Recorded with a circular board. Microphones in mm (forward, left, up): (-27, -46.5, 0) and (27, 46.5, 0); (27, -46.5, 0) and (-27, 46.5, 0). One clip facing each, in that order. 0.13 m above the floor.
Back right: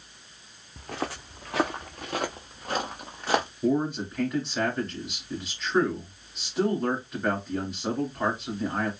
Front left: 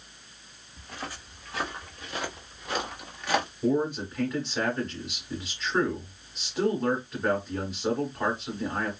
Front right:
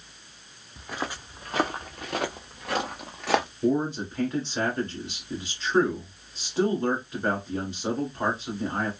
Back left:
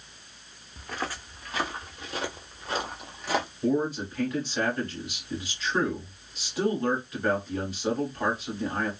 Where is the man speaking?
35° right, 1.5 m.